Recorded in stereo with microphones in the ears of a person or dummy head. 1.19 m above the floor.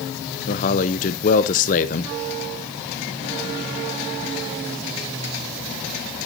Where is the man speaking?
40° left (ahead or behind), 0.8 m.